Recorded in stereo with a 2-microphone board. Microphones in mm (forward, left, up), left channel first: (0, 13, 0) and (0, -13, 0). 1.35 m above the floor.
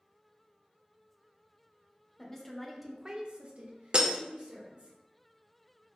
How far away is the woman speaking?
About 0.9 m.